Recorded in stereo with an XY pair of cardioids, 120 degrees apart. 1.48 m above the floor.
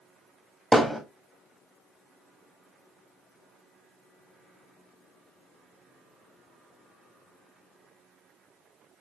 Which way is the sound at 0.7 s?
Straight ahead.